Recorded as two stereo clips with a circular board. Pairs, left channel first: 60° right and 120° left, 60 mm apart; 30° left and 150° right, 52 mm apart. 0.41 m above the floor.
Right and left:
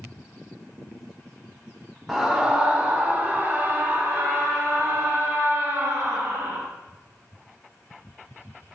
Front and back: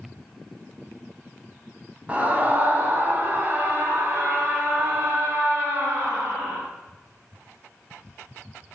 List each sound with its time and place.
2.1 s a scream: 165° right, 1.1 m; by 6.6 s 165° left, 3 m